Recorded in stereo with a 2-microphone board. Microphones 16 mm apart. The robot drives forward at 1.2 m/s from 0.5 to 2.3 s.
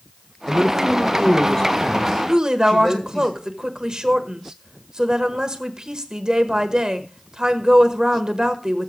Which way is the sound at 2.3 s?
45° right (ahead or behind).